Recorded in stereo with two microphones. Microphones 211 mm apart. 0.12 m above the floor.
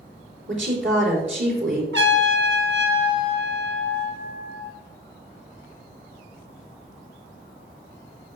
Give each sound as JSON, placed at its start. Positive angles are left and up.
{"t": 0.5, "sound": "a woman speaking", "side_deg": -65, "distance_m": 5.0}
{"t": 1.9, "sound": "a trumpet", "side_deg": -65, "distance_m": 2.0}